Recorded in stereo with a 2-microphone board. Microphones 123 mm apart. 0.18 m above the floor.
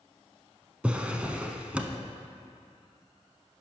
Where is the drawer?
10° right (ahead or behind), 0.7 m.